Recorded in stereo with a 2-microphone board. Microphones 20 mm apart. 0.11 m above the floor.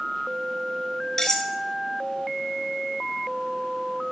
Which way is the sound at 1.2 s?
35° left (ahead or behind).